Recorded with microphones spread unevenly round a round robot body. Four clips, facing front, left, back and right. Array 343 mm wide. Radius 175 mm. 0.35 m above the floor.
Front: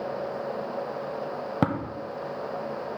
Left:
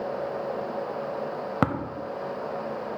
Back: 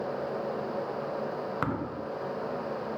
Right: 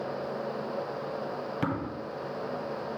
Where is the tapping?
40° left, 0.9 m.